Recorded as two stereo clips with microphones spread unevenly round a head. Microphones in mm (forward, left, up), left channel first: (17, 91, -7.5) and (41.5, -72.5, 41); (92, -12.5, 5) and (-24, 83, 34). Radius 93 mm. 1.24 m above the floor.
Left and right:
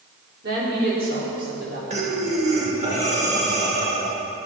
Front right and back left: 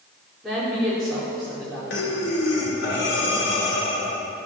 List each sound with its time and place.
0.4 s a woman speaking: 130° right, 4 m
1.9 s breathing: 35° right, 2.5 m